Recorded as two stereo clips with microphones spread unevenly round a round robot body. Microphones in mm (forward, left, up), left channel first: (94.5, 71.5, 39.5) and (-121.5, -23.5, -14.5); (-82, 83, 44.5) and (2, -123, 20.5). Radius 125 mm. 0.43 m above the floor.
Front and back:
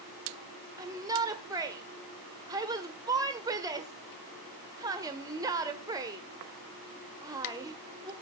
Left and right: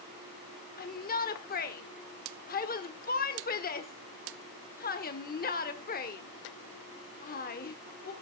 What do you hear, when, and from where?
0.8 s a shout: 150° left, 1.3 m